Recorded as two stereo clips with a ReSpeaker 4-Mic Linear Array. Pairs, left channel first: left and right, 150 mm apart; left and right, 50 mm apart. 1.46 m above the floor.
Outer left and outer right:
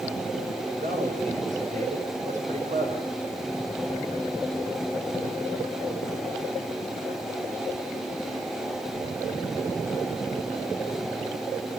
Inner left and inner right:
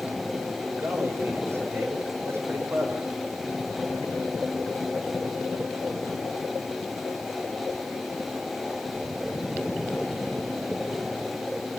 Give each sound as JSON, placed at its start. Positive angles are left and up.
{"t": 0.8, "sound": "a man speaking", "side_deg": -60, "distance_m": 7.0}